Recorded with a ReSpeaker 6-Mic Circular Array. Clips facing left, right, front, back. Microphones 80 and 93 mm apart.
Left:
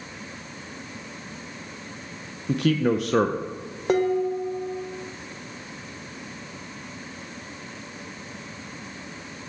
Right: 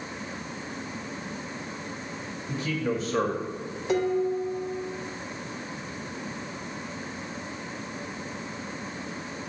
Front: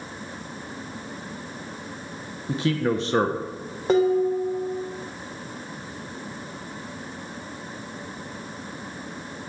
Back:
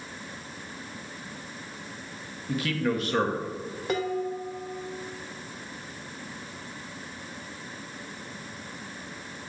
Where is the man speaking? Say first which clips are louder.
Left 7 dB, front 4 dB; 60° left, 0.6 m.